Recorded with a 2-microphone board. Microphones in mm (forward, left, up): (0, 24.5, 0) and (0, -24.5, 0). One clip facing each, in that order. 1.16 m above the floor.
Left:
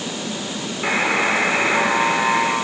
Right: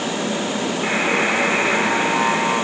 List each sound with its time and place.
0.8 s a buzzer: 10° left (ahead or behind), 4.5 m